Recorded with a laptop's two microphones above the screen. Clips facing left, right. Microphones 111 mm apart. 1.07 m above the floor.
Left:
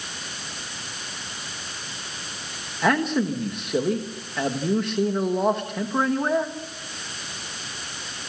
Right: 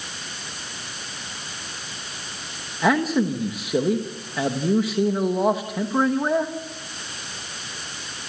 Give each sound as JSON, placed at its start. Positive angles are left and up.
{"t": 2.8, "sound": "a man speaking", "side_deg": -5, "distance_m": 1.1}